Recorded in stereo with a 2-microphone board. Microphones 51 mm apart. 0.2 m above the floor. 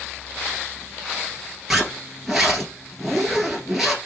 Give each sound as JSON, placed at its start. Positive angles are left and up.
{"t": 1.7, "sound": "a zipper", "side_deg": -5, "distance_m": 1.3}